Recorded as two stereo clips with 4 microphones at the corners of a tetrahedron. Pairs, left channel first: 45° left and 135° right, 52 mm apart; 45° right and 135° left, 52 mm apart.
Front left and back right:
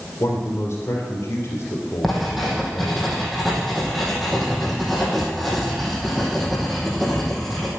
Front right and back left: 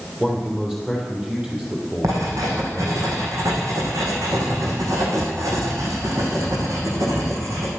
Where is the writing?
135° left, 3 m.